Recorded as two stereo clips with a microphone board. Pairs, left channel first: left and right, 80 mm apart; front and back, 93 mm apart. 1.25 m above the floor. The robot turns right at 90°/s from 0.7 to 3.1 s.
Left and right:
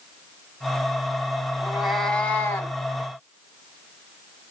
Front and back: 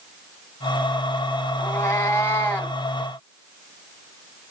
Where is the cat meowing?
25° right, 1.1 m; by 2.8 s 80° left, 1.1 m.